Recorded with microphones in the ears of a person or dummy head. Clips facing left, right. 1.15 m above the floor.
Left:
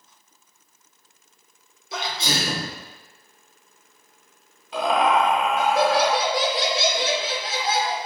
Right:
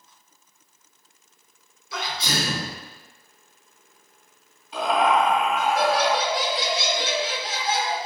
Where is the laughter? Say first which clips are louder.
Left 1 dB; 50° left (ahead or behind), 1.2 m.